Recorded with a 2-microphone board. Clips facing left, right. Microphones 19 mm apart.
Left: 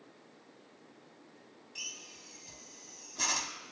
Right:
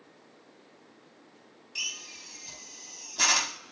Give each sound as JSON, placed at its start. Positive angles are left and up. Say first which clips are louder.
{"t": 1.8, "sound": "a drill", "louder": "right 8 dB", "side_deg": -45, "distance_m": 0.5}